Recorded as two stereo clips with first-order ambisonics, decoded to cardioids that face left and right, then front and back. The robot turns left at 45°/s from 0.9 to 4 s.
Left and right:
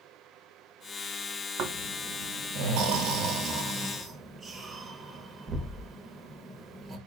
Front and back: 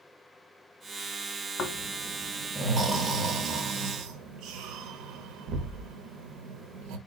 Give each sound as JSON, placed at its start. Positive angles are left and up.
{"t": 1.6, "sound": "snoring", "azimuth_deg": -60, "distance_m": 1.1}